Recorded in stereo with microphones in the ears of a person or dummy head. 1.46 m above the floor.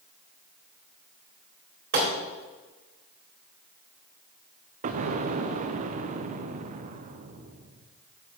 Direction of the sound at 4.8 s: 40° right (ahead or behind).